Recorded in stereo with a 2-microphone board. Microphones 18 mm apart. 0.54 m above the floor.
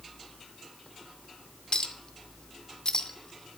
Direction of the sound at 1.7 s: 45° left (ahead or behind).